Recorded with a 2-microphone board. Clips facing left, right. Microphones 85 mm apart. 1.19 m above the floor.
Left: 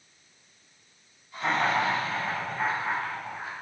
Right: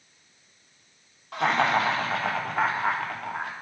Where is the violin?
No violin in this recording.